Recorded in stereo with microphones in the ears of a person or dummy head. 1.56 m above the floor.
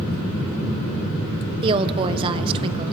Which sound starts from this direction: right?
A woman speaking, at 1.6 s.